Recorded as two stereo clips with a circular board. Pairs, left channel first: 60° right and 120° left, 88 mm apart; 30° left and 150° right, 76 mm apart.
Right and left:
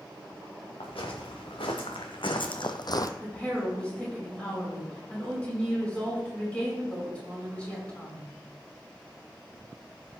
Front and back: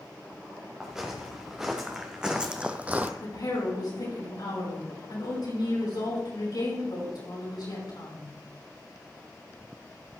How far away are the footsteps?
About 3 m.